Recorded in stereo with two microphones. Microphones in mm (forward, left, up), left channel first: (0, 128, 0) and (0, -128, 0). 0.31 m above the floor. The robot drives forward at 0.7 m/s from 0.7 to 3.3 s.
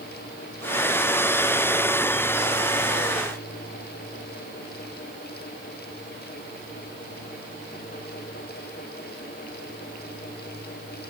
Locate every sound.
Only background noise.